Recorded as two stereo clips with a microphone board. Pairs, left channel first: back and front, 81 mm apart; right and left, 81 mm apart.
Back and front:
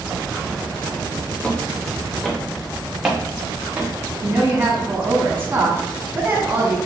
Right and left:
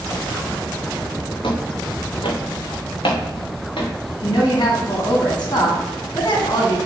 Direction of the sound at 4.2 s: 65° right.